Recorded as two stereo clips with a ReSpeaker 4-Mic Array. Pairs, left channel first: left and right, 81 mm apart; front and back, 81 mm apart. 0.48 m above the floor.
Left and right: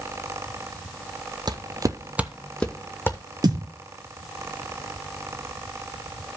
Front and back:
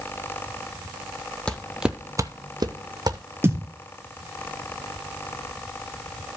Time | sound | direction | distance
1.5 | footsteps | 75° right | 0.9 m
3.4 | a thud | 120° right | 1.5 m